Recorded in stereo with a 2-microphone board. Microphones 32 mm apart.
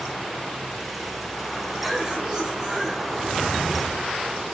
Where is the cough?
25° right (ahead or behind), 7.5 m.